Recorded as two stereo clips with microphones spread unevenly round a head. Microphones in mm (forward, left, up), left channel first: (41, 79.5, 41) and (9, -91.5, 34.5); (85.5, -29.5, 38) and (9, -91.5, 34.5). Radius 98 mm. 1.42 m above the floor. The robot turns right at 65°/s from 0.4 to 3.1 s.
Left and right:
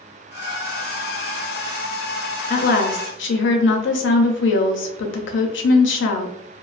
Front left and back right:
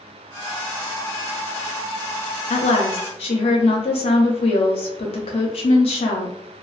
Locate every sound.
2.5 s a woman speaking: 35° left, 0.5 m; by 6.3 s 70° left, 0.5 m